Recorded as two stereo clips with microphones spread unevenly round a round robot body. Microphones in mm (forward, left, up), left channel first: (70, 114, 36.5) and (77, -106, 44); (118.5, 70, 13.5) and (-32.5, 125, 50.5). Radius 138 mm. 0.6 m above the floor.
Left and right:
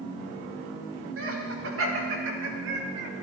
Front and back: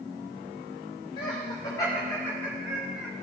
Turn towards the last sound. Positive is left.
turn(degrees=-105)